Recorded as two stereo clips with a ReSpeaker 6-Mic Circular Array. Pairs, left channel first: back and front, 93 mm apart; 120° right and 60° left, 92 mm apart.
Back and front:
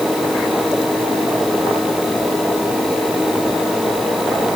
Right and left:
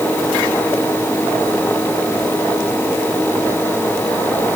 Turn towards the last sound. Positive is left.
No sound to turn to.